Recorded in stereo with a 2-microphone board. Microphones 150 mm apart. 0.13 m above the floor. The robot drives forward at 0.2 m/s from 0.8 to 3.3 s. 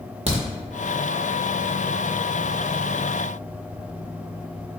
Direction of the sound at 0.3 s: 45° right (ahead or behind).